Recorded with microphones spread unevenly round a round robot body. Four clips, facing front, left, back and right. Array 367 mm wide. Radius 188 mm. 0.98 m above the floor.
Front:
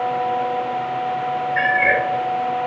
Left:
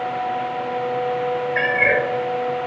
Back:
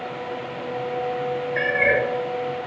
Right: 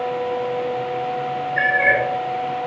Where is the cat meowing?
140° left, 3 m.